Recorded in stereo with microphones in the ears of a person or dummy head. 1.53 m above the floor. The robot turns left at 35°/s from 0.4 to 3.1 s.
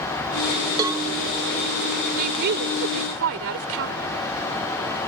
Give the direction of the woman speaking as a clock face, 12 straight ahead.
2 o'clock.